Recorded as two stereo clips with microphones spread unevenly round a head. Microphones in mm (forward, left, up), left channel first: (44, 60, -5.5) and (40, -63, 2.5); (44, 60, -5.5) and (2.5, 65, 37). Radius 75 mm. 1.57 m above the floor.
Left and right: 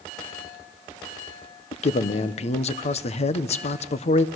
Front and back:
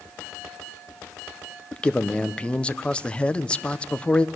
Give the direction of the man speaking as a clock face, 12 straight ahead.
10 o'clock.